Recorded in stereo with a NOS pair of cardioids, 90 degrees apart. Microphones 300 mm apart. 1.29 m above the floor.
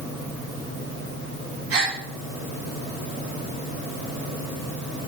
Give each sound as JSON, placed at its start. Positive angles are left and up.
{"t": 1.7, "sound": "a gasp", "azimuth_deg": -50, "distance_m": 3.0}